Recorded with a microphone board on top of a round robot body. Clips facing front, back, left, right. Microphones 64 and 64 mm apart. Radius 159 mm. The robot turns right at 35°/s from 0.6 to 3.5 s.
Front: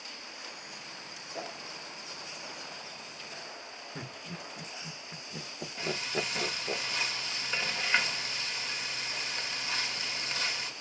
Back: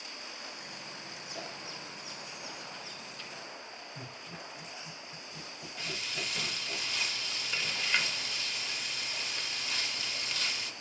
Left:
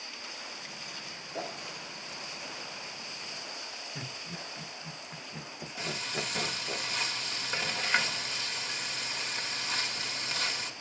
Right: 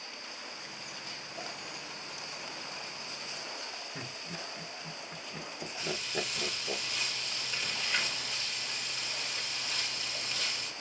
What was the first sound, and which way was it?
A whoosh, 65° left.